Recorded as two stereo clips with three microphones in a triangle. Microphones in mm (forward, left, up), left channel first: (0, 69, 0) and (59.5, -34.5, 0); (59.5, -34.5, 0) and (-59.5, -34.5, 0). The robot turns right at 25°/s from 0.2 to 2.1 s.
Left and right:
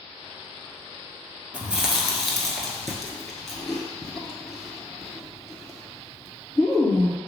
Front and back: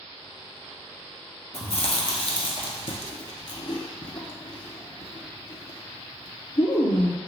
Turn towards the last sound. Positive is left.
turn(degrees=35)